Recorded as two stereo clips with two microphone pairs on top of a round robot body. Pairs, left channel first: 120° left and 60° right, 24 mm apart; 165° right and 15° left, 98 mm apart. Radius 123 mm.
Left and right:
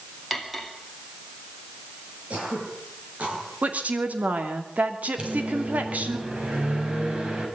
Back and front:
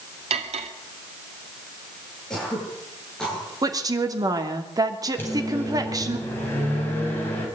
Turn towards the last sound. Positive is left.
turn(degrees=-95)